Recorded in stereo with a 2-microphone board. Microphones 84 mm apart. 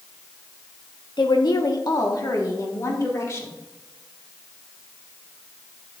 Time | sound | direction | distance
1.2 | a woman speaking | 65° left (ahead or behind) | 1.2 m